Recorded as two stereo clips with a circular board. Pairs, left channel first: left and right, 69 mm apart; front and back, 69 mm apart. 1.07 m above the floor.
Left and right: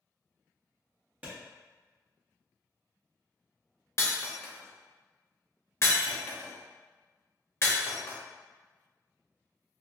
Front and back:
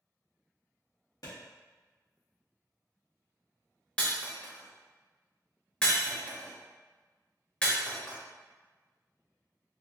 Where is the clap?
25° right, 1.5 m.